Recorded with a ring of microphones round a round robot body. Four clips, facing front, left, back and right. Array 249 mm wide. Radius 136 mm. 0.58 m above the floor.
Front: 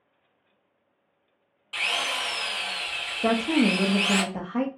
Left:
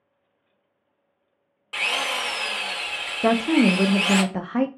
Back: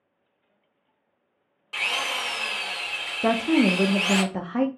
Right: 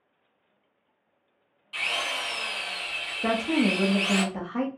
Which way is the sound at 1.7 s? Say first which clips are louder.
Left 5 dB, back 1 dB; 110° left.